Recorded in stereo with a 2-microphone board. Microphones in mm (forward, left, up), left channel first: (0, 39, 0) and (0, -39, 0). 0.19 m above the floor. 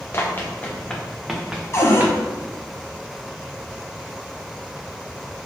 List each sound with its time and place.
0.1 s running footsteps: 30° left (ahead or behind), 1.3 m; by 2.2 s 30° right (ahead or behind), 1.2 m
1.7 s a cupboard door: 40° left (ahead or behind), 1.0 m